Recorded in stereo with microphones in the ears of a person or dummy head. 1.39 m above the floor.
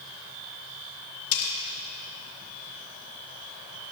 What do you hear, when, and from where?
1.3 s cutlery clinking: 70° left (ahead or behind), 2.5 m